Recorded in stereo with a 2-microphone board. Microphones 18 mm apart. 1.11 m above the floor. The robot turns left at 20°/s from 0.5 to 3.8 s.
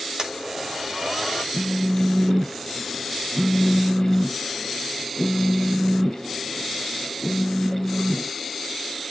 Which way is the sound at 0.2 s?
40° right (ahead or behind).